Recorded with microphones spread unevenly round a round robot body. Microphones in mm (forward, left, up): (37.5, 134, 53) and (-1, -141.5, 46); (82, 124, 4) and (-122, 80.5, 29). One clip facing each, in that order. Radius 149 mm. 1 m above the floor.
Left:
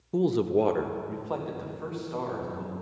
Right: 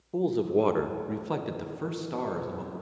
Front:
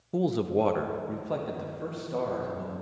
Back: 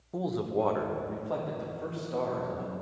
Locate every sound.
0.1 s a man speaking: 40° left, 0.5 m; by 2.7 s 70° right, 1.6 m